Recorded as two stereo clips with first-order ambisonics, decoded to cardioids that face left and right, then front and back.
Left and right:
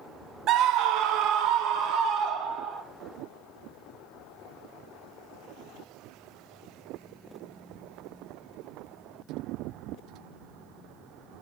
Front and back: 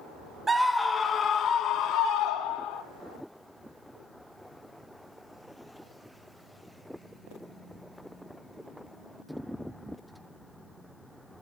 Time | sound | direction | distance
0.5 | a scream | 110° right | 0.7 m